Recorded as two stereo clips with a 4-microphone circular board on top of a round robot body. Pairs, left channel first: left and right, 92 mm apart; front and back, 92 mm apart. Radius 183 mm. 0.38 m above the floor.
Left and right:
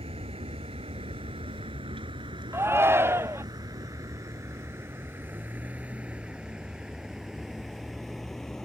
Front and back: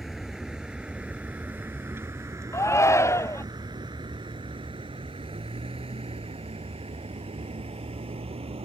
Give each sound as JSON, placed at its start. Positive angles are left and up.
{"t": 0.0, "sound": "a vehicle", "azimuth_deg": -95}
{"t": 2.5, "sound": "a shout", "azimuth_deg": -40}